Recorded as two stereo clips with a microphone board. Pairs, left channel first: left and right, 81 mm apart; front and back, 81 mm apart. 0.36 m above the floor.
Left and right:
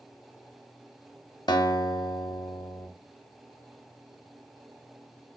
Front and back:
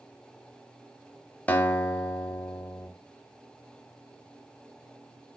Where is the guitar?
70° left, 0.5 m.